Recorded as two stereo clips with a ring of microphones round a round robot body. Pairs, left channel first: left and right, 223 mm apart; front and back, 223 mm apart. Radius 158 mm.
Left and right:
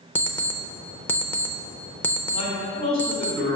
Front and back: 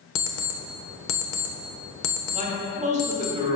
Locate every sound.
0.1 s an alarm clock: 10° left, 0.9 m
2.3 s a man speaking: 125° left, 1.7 m